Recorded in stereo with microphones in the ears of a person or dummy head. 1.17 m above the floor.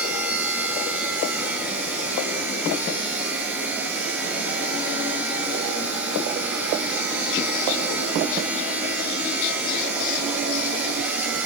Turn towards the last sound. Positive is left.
turn(degrees=-10)  # may be behind; listen again after turning